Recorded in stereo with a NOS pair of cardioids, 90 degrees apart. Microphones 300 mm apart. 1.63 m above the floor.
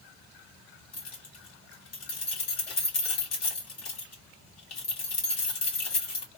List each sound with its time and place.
0.9 s keys jangling: 65° left, 1.7 m